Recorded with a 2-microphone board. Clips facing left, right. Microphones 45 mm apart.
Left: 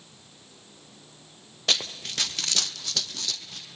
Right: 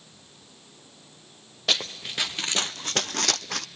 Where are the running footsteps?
5° right (ahead or behind), 1.0 m; by 3.7 s 80° right, 0.6 m.